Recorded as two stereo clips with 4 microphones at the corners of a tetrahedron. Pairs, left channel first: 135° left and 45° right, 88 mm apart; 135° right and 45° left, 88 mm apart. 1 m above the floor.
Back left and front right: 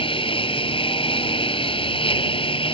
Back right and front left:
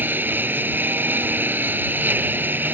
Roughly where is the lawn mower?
Behind left.